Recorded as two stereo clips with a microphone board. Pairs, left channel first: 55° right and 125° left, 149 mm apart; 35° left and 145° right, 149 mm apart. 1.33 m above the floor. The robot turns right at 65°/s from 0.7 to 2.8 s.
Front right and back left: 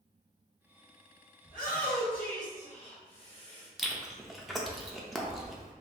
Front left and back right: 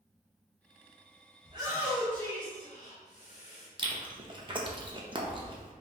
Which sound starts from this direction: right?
A shout, at 1.4 s.